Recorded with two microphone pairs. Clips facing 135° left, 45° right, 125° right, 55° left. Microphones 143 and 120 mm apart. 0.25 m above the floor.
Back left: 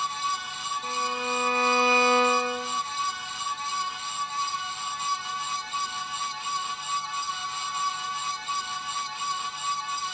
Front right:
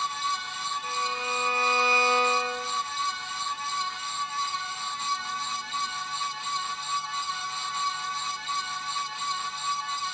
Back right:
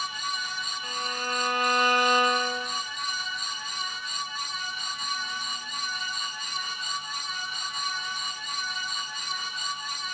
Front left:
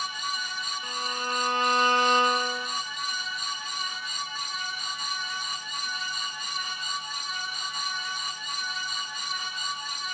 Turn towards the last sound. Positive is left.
turn(degrees=120)